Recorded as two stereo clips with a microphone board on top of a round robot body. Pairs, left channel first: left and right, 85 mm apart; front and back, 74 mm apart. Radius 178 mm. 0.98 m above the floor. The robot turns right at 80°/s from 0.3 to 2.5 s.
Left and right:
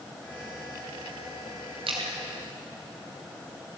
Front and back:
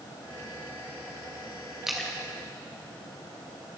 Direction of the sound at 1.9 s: 95° right.